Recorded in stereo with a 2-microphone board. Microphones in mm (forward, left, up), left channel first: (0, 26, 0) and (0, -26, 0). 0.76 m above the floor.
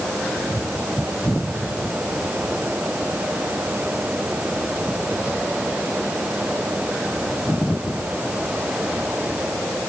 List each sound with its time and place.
Only background noise.